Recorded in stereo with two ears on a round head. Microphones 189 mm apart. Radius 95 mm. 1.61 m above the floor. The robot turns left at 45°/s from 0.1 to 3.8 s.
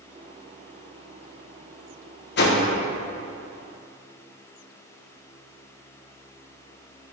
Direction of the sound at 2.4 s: 50° left (ahead or behind).